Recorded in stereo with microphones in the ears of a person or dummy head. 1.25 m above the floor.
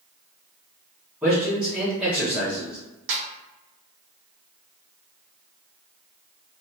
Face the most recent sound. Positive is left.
turn(degrees=-60)  # may be behind; listen again after turning